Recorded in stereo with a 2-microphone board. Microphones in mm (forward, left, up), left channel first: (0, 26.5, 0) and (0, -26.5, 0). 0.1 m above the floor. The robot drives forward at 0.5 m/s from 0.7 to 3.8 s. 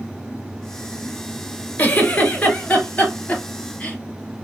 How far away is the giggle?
About 1.1 m.